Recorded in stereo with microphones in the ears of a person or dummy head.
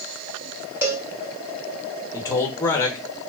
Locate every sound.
0.8 s a cowbell: 15° right (ahead or behind), 0.6 m
2.1 s a man speaking: 20° left (ahead or behind), 1.0 m